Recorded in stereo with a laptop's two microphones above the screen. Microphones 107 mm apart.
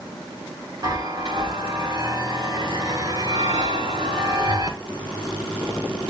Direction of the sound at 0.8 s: 40° right (ahead or behind).